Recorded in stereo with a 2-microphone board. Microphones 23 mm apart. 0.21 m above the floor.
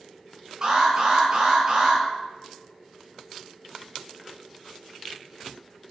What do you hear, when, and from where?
0.6 s an alarm: 30° right (ahead or behind), 5 m